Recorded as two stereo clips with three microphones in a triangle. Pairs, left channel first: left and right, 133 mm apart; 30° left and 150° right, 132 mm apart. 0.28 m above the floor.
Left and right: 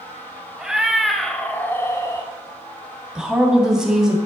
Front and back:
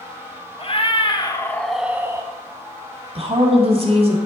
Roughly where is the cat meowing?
Ahead.